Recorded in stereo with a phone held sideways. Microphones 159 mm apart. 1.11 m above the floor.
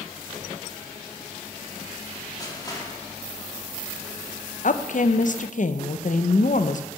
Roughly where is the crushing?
Left.